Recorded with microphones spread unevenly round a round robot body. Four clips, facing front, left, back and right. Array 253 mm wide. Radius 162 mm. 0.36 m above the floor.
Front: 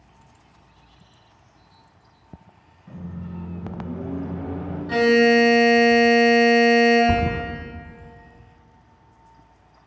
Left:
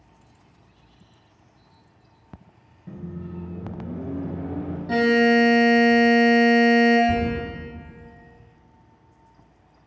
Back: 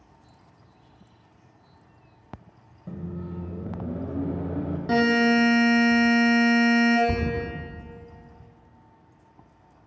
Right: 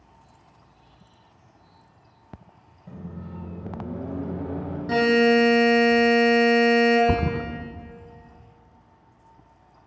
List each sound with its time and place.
2.9 s a microwave: 170° left, 1.4 m
4.9 s a buzzer: 150° right, 5 m
7.1 s a thud: 70° right, 1.1 m